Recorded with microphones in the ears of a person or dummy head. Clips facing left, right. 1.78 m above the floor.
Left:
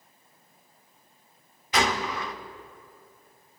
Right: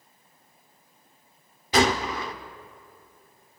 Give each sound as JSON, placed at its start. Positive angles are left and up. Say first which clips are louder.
{"t": 1.7, "sound": "a gunshot", "louder": "right 4 dB", "side_deg": -25, "distance_m": 0.7}